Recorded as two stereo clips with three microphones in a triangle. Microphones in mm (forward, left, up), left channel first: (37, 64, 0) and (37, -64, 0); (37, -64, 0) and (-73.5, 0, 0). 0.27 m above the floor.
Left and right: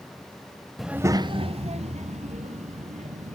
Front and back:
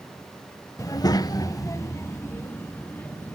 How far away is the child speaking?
About 0.7 m.